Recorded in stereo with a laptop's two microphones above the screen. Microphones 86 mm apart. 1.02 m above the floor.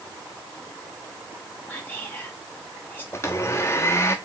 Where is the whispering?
20° left (ahead or behind), 1.1 m.